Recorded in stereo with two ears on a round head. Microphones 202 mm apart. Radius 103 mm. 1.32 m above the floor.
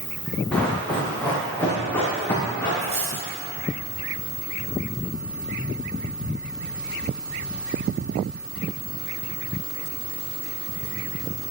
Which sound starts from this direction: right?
Cutlery clinking, at 2.8 s.